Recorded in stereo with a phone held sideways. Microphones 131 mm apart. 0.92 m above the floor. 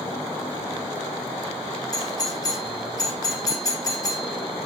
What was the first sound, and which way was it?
A doorbell, 30° left (ahead or behind).